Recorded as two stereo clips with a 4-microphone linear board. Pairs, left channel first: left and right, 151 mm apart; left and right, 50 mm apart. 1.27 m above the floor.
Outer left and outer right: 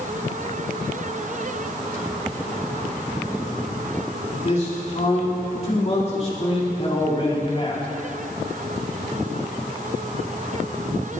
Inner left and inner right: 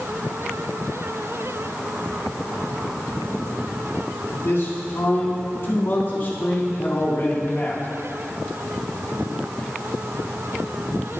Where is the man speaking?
50° left (ahead or behind), 4.5 m; by 7.9 s 35° left (ahead or behind), 2 m.